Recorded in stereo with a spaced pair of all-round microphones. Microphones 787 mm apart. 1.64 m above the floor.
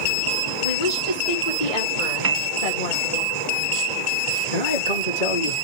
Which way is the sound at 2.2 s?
30° right (ahead or behind).